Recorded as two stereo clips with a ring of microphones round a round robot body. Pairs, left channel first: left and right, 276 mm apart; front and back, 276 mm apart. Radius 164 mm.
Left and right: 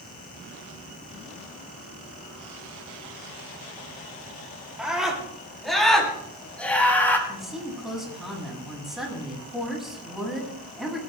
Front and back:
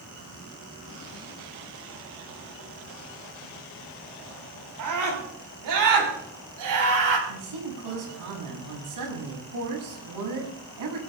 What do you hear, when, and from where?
4.8 s a scream: 175° right, 8.5 m; by 7.2 s 175° left, 6.5 m
7.3 s a woman speaking: straight behind, 6.5 m